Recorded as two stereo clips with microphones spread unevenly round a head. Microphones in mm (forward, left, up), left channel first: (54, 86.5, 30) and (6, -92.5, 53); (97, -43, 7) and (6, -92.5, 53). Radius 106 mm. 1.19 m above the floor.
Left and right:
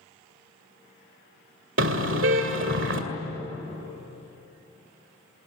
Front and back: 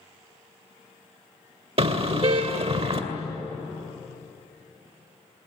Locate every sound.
1.8 s a car horn: 135° right, 2.5 m